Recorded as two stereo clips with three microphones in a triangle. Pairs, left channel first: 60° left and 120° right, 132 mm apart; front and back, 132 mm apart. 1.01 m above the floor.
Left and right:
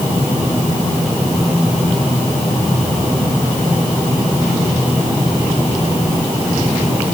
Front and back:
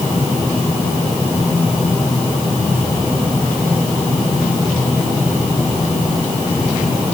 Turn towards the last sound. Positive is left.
No sound to turn to.